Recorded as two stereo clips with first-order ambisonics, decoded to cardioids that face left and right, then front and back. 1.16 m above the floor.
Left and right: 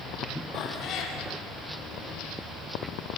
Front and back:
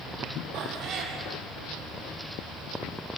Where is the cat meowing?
135° left, 3 m.